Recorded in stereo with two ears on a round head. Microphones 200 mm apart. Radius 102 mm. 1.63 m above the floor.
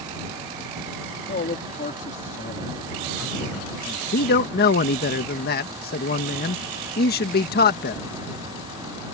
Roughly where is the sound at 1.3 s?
Left.